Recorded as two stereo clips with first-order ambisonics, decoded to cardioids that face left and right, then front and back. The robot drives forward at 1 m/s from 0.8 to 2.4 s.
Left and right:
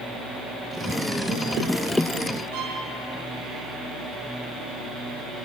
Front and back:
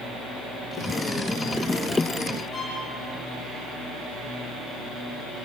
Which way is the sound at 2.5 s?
75° right.